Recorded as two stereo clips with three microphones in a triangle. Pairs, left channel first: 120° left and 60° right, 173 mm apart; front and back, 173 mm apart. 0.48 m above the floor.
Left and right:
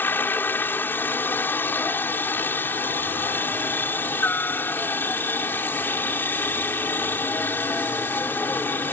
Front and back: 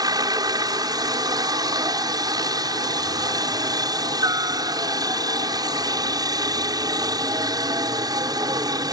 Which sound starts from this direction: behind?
A helicopter, at 0.0 s.